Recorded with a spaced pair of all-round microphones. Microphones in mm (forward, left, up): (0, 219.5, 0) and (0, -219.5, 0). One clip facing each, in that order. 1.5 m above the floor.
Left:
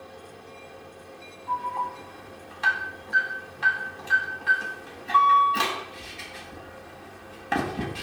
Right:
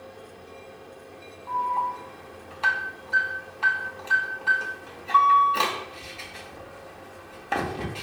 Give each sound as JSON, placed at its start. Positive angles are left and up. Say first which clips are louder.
{"t": 1.5, "sound": "an alarm", "louder": "right 2 dB", "side_deg": 30, "distance_m": 4.5}